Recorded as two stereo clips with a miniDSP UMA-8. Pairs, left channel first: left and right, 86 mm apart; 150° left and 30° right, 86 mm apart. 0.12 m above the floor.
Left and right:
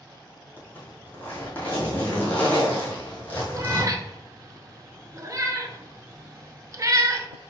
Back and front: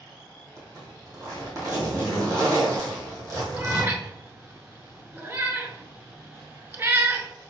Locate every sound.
0.6 s a zipper: 20° left, 2 m
3.5 s a cat meowing: 70° right, 0.7 m